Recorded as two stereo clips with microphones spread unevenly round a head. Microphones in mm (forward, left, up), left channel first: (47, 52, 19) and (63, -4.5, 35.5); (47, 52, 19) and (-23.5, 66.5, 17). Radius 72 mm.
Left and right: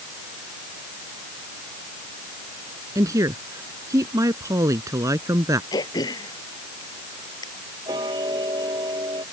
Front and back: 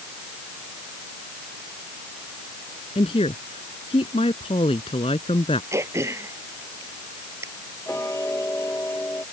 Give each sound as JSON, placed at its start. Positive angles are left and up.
{"t": 3.0, "sound": "a woman speaking", "azimuth_deg": -50}
{"t": 5.7, "sound": "throat clearing", "azimuth_deg": 120}
{"t": 7.9, "sound": "ticking", "azimuth_deg": -85}